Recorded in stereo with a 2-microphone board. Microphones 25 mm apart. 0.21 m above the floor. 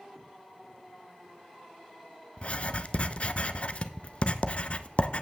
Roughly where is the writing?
Left.